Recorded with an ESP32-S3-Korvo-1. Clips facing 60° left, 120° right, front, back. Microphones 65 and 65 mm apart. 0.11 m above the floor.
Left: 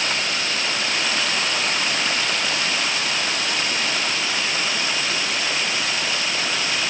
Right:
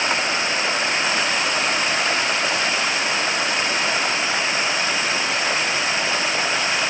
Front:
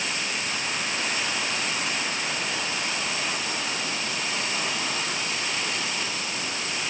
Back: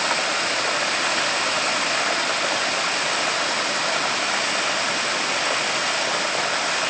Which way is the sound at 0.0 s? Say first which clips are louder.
Right 3 dB, back 8 dB; straight behind.